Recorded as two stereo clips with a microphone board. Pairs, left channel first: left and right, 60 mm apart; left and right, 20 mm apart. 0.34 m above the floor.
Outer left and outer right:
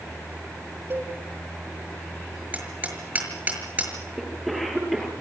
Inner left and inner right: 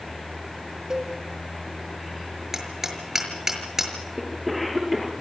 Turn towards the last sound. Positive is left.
turn(degrees=0)  # may be behind; listen again after turning